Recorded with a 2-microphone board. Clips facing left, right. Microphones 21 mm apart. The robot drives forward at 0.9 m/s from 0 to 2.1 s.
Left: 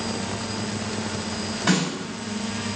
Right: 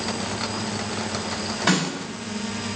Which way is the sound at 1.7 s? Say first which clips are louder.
Right 1 dB; 25° right (ahead or behind).